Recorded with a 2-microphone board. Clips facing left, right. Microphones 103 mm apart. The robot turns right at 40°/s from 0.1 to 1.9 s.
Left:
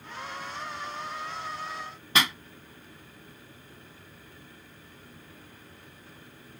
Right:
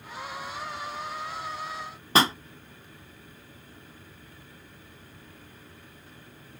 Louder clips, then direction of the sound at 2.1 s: Right 5 dB; 35° right (ahead or behind).